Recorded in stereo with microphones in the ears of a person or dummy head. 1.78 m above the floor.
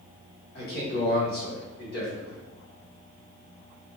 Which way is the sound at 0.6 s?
55° left (ahead or behind).